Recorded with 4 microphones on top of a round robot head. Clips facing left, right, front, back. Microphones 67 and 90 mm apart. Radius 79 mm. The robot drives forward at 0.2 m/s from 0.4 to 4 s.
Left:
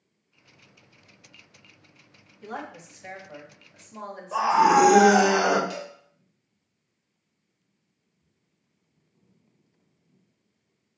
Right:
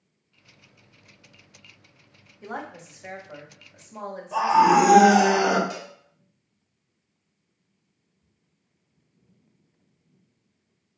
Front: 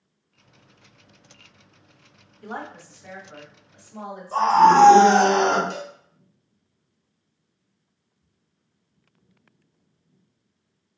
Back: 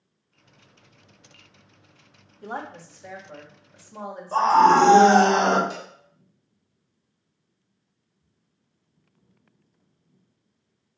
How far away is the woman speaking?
About 1.4 m.